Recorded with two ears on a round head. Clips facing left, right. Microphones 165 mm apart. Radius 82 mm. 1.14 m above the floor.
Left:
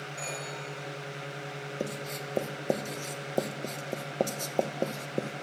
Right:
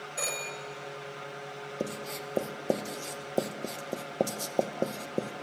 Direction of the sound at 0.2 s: 70° right (ahead or behind).